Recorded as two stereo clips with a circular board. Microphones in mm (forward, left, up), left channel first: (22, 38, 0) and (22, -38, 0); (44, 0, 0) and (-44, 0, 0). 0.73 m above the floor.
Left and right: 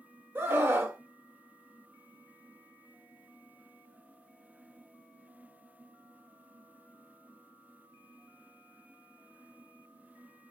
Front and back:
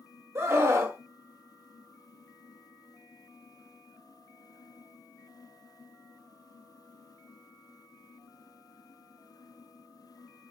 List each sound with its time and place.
0.3 s a scream: 135° right, 0.7 m